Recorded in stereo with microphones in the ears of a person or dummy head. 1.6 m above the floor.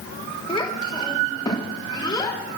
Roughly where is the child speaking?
Left.